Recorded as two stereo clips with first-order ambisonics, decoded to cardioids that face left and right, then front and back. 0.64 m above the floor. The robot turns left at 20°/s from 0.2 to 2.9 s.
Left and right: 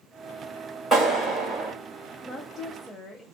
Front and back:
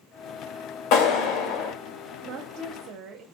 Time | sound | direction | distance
0.9 | a clap | 5° left | 2.5 m
2.2 | a woman speaking | 175° left | 0.9 m